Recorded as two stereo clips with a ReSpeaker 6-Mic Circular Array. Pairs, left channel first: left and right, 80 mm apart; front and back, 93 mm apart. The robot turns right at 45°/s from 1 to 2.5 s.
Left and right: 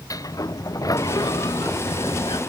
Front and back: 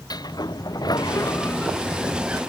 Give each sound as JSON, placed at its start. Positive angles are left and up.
{"t": 0.1, "sound": "a sliding door", "azimuth_deg": 45}